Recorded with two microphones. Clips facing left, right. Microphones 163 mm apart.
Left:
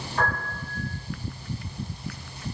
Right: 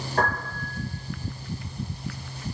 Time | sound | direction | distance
0.2 | a piano | 65° right (ahead or behind) | 3.5 m